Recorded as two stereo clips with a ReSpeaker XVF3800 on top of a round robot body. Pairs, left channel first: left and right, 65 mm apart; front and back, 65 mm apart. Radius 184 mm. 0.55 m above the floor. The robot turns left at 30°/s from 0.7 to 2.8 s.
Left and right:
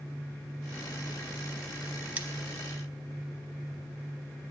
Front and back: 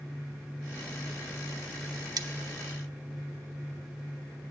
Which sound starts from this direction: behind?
Cutlery clinking, at 2.2 s.